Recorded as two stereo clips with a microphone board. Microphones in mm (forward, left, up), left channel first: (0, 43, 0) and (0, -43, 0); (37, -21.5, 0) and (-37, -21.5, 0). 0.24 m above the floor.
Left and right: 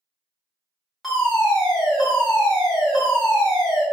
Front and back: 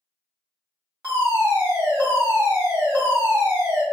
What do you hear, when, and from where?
1.0 s a fire alarm: straight behind, 1.9 m